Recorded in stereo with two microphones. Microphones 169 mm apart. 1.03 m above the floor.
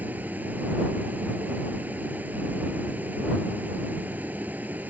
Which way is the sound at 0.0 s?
10° right (ahead or behind).